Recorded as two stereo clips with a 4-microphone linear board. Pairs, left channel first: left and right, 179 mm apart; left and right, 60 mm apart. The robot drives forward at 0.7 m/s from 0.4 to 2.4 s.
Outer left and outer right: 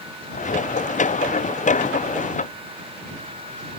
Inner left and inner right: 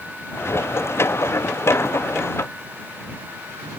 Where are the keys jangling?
I don't hear keys jangling.